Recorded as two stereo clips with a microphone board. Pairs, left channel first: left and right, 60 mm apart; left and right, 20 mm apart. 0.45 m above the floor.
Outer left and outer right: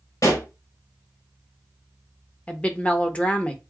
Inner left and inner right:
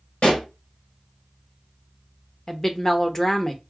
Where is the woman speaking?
20° left (ahead or behind), 0.8 m.